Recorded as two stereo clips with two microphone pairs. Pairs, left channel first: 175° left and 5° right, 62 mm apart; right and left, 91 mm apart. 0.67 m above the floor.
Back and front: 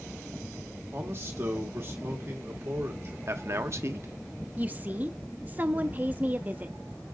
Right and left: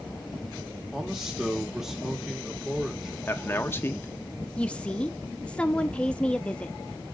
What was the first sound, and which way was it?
A man speaking, 10° left.